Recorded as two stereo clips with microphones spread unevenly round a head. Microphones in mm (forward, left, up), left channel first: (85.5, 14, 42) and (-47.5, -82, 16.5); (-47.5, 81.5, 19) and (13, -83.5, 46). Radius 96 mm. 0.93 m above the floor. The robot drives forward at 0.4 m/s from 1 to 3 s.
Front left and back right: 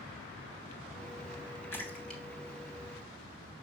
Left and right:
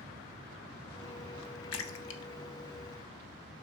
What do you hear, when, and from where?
1.7 s a splash: 110° left, 1.0 m; by 2.2 s 120° left, 1.1 m